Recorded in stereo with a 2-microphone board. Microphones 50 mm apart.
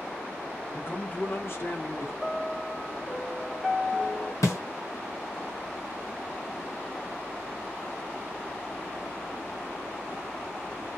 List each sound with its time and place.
0.7 s a man speaking: 10° left (ahead or behind), 0.8 m; by 2.1 s 70° left (ahead or behind), 1.3 m
2.2 s a piano: 5° left (ahead or behind), 1.0 m
4.4 s a snare drum: 85° left, 0.8 m